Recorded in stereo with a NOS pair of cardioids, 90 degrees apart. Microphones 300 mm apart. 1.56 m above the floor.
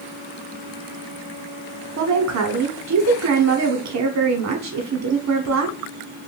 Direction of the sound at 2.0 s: 60° right.